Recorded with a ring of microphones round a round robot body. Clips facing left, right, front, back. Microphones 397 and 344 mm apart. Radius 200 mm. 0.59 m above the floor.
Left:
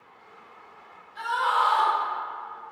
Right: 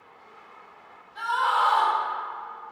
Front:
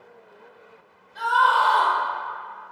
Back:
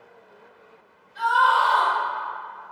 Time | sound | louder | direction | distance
1.1 | a scream | even, even | 40° right | 2.0 m